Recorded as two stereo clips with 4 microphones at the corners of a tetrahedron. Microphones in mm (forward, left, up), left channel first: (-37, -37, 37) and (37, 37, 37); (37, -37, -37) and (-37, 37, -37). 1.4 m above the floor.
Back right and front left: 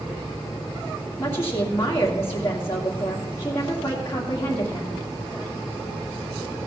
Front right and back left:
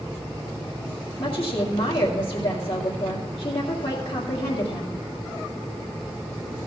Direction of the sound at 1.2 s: 70° right.